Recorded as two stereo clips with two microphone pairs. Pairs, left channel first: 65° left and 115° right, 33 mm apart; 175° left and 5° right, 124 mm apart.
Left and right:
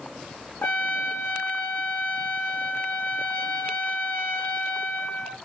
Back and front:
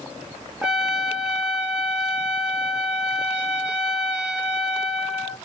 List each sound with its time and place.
0.6 s a trumpet: 80° left, 1.6 m